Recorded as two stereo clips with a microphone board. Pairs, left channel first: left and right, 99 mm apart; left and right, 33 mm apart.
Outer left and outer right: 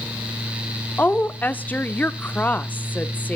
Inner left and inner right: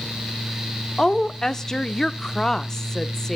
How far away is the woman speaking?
About 0.9 m.